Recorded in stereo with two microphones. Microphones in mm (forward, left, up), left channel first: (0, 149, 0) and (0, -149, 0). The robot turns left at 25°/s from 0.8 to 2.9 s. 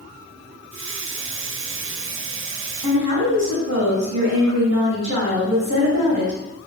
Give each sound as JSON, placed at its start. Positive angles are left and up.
{"t": 2.8, "sound": "a woman speaking", "side_deg": -60, "distance_m": 1.7}